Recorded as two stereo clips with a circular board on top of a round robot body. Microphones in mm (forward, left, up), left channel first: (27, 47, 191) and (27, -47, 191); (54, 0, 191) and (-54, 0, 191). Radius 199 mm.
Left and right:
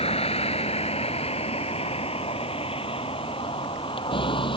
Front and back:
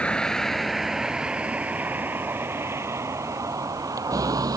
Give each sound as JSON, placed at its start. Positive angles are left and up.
{"t": 0.0, "sound": "a vehicle", "azimuth_deg": 80}